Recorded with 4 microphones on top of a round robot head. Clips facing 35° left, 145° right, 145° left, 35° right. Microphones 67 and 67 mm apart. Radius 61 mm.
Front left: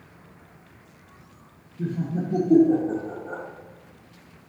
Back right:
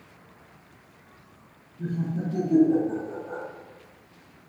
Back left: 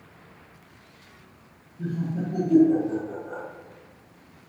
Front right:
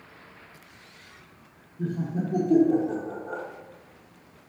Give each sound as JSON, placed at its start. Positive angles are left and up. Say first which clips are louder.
{"t": 1.8, "sound": "laughter", "louder": "front left 2 dB, even", "azimuth_deg": 25, "distance_m": 0.9}